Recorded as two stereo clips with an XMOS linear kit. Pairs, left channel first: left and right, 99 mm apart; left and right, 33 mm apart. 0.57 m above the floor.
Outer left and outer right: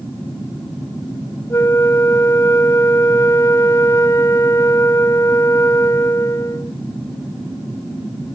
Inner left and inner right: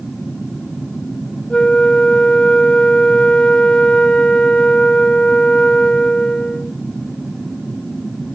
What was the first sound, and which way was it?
A flute, 30° left (ahead or behind).